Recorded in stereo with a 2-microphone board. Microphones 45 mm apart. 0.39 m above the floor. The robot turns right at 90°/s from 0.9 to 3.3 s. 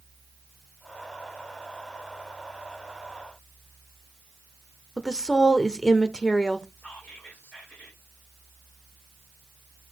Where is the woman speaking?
15° left (ahead or behind), 0.8 m.